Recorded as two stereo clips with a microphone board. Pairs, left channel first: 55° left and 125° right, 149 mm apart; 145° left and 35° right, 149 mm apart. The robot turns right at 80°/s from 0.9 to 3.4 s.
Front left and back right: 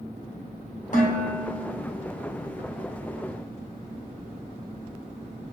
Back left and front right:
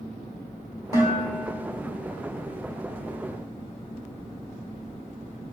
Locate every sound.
0.9 s dishes clattering: 30° left, 1.8 m; by 1.8 s 100° left, 1.8 m